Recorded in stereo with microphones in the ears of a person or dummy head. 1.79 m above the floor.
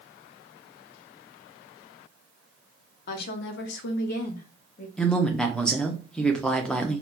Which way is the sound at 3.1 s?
55° left (ahead or behind).